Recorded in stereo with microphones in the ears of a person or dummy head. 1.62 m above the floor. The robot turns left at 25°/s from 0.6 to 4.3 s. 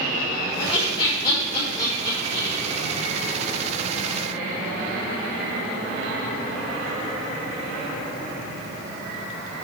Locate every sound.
0.6 s laughter: 45° left (ahead or behind), 4.5 m; by 2.6 s 5° right (ahead or behind), 4.5 m